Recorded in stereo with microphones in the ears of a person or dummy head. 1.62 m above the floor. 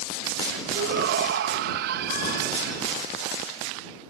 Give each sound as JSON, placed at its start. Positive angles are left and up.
{"t": 0.8, "sound": "a shout", "side_deg": -60}